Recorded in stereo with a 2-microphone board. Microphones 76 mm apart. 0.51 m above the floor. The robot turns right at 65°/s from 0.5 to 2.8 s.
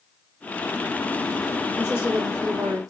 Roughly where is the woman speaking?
Behind right.